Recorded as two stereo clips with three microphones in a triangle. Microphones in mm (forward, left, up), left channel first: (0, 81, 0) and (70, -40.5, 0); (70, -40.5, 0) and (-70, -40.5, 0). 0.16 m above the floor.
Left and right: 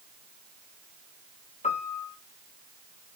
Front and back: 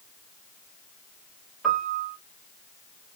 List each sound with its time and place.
1.6 s a piano: 90° left, 1.4 m